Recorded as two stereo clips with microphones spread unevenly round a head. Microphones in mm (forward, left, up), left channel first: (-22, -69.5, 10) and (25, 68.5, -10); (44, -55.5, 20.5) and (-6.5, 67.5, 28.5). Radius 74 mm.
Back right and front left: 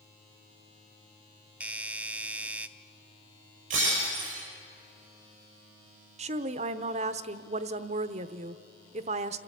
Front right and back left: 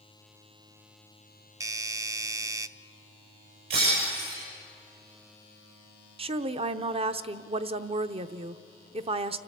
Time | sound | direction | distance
1.6 | a doorbell | 105° left | 0.6 m
3.7 | breaking glass | 110° left | 7 m
6.2 | a woman speaking | 80° left | 0.8 m